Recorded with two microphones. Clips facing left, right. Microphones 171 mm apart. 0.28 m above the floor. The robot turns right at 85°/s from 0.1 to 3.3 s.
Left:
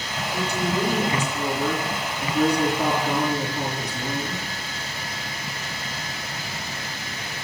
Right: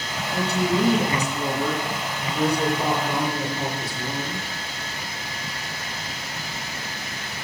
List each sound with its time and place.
0.3 s a woman speaking: 120° right, 3 m; by 4.5 s 135° left, 3 m